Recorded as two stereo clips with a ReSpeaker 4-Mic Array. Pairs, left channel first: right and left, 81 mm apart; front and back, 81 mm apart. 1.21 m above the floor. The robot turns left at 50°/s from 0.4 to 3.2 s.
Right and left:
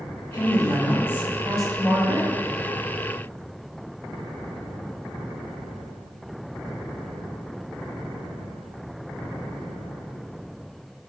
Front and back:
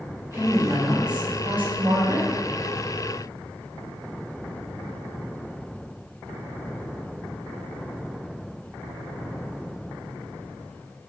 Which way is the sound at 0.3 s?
115° right.